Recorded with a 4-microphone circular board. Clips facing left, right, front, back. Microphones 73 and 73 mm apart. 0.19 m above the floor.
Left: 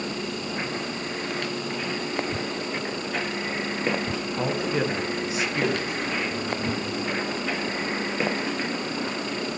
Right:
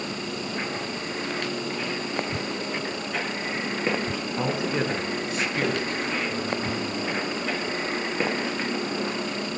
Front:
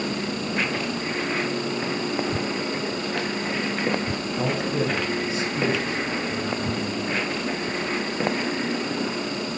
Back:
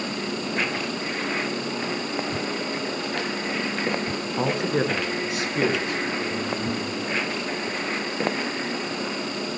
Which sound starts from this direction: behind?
A man speaking, at 4.4 s.